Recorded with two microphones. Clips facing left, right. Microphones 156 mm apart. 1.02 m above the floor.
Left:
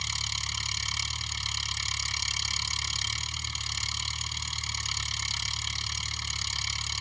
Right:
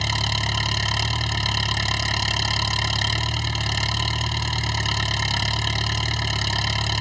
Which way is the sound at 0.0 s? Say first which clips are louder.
Right 15 dB; 70° right (ahead or behind).